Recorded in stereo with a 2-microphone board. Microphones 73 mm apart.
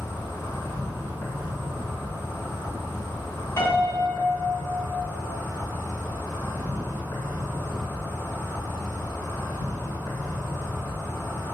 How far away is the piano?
About 2 m.